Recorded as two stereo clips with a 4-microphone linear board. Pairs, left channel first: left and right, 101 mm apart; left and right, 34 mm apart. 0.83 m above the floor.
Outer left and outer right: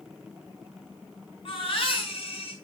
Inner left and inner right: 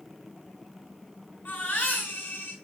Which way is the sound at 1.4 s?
60° left (ahead or behind).